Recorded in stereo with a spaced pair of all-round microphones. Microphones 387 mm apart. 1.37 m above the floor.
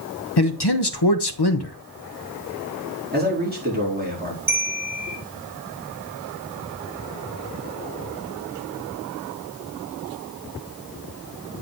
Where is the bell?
55° right (ahead or behind), 3.5 m.